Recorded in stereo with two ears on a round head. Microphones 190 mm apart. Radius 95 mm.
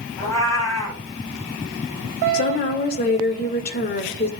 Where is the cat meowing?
15° left (ahead or behind), 6.5 m.